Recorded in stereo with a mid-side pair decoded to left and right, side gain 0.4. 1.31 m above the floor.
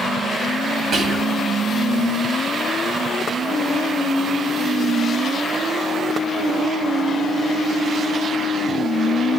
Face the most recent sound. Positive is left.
turn(degrees=-65)